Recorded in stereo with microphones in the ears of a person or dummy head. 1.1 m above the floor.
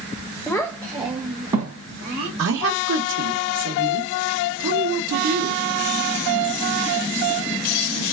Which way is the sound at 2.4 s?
80° right.